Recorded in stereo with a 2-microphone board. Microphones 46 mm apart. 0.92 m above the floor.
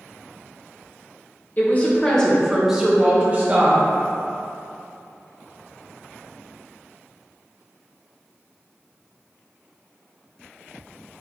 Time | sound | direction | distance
1.6 | a woman speaking | 40° left (ahead or behind) | 0.9 m